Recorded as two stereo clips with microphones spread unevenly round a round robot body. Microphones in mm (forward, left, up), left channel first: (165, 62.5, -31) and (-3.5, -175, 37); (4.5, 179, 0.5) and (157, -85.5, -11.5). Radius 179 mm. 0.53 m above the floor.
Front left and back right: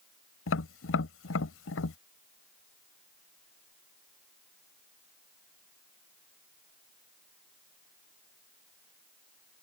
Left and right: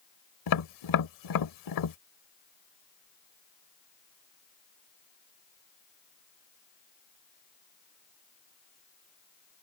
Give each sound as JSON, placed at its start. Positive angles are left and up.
{"t": 0.5, "sound": "tapping", "azimuth_deg": 105}